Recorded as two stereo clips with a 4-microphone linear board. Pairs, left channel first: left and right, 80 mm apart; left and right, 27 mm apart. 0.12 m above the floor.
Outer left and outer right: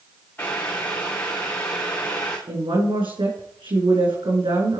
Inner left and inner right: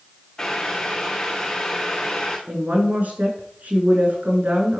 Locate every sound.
0.4 s boiling: 25° left (ahead or behind), 3.5 m
2.5 s a woman speaking: 80° right, 6.5 m